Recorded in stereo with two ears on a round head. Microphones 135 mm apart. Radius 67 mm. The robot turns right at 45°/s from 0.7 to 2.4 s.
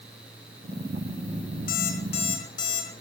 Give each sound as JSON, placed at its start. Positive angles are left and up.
{"t": 1.7, "sound": "an alarm clock", "azimuth_deg": 120, "distance_m": 4.5}